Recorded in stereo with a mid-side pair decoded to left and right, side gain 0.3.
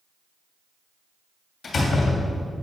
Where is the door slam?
65° left, 2.5 m.